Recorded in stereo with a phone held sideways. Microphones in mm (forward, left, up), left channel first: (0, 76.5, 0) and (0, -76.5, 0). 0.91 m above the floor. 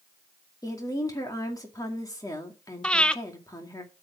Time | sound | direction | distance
0.6 | a woman speaking | 25° left (ahead or behind) | 2 m
2.8 | breathing | 5° left (ahead or behind) | 0.5 m